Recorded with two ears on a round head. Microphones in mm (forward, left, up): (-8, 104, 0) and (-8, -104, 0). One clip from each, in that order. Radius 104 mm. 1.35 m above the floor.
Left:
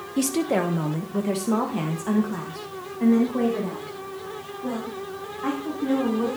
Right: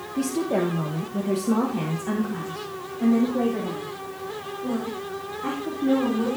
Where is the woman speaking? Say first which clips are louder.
Left 1 dB; 75° left (ahead or behind), 1.0 m; by 6.4 s 25° left (ahead or behind), 4 m.